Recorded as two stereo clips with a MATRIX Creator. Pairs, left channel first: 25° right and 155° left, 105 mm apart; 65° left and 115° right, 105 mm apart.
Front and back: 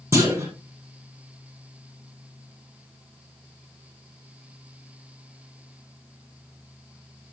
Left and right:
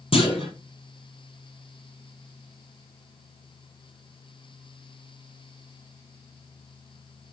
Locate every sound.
0.1 s a clunk: 95° left, 4.5 m